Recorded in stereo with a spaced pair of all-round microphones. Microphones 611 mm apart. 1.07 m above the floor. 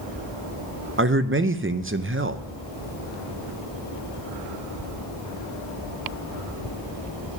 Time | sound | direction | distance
1.0 | a man speaking | 20° right (ahead or behind) | 0.5 m